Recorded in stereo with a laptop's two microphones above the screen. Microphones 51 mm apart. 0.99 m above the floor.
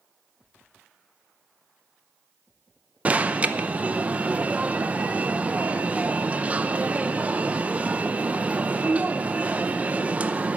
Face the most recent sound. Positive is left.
turn(degrees=-30)  # may be behind; listen again after turning